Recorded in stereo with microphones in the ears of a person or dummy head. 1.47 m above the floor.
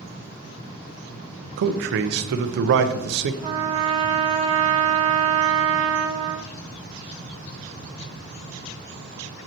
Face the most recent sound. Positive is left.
turn(degrees=-35)  # may be behind; listen again after turning